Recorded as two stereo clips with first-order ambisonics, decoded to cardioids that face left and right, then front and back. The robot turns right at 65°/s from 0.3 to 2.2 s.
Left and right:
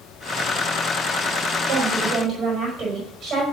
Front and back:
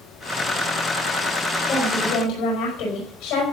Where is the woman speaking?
60° right, 5 m; by 3.4 s 30° right, 5 m.